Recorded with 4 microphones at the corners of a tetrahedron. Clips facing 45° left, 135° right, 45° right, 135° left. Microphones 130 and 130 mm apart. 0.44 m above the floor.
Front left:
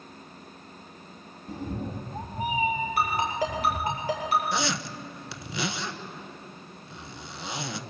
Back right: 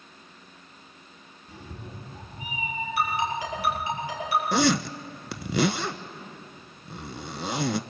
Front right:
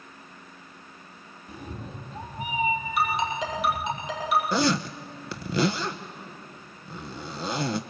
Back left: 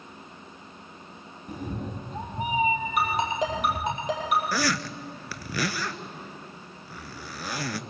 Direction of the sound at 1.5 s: 90° left.